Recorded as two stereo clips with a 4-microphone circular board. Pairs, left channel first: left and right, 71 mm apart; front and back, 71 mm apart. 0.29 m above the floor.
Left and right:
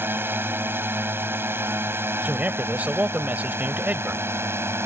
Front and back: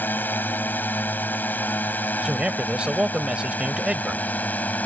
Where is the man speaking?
125° right.